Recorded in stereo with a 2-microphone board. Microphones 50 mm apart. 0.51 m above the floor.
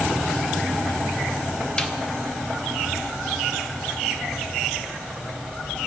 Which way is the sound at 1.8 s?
20° left (ahead or behind).